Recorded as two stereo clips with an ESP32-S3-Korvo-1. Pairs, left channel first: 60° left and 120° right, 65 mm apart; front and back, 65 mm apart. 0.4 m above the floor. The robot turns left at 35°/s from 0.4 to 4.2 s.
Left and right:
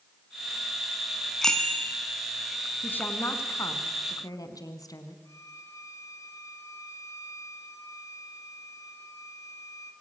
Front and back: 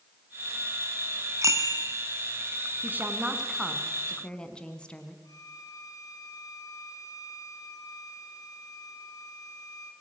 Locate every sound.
1.4 s a bicycle bell: 145° left, 2.5 m; by 2.0 s 125° left, 2.5 m
2.8 s a woman speaking: 120° left, 3.5 m; by 5.2 s 75° left, 3.5 m
5.2 s a violin: 25° left, 3.5 m